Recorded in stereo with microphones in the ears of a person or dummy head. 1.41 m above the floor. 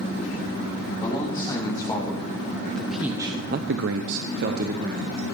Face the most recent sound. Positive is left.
turn(degrees=-45)  # may be behind; listen again after turning